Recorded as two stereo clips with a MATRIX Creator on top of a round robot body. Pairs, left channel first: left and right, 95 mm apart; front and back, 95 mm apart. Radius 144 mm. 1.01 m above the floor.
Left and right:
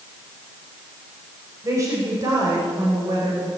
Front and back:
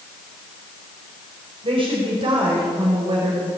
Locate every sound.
1.6 s a woman speaking: 150° right, 5 m; by 3.5 s 140° right, 4.5 m